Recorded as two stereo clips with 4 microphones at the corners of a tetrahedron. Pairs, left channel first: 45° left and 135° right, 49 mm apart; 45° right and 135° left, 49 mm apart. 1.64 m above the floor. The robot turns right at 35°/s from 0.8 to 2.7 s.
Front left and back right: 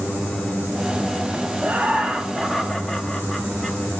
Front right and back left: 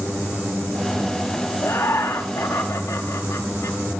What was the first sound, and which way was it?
Laughter, 80° right.